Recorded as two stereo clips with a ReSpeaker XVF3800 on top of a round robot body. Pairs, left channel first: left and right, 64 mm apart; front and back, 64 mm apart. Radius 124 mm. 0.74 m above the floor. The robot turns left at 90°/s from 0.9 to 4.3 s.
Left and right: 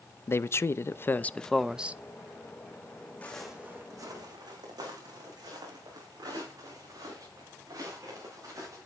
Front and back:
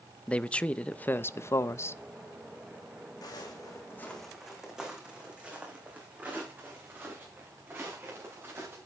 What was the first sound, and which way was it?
A man speaking, 65° left.